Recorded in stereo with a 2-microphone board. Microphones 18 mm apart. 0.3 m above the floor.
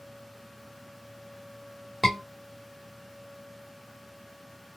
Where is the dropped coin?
No dropped coin in this recording.